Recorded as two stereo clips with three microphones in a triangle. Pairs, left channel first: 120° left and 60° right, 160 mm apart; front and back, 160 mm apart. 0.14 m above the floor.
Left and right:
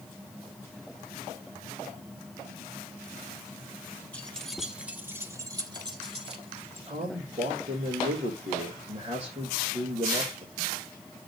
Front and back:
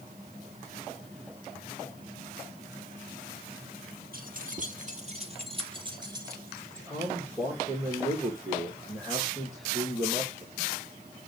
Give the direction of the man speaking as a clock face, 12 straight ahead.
3 o'clock.